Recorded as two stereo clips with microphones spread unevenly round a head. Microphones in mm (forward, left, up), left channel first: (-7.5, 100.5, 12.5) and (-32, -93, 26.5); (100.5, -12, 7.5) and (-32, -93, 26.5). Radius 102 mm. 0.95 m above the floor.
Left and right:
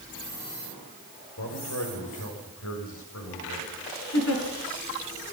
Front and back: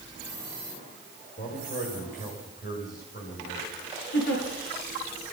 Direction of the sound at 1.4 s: 80° left.